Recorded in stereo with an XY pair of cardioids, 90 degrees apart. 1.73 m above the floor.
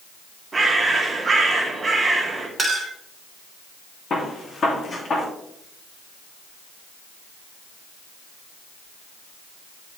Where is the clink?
30° right, 2.5 m.